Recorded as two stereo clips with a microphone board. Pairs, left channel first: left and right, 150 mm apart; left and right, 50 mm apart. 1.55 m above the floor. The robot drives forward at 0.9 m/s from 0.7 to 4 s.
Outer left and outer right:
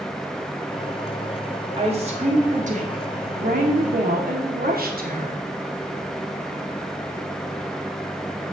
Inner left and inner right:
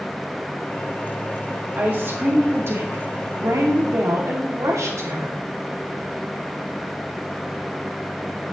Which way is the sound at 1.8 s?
40° right (ahead or behind).